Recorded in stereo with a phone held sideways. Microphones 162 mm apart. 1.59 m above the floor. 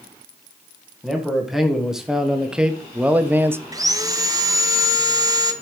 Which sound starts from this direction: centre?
A man speaking, at 1.0 s.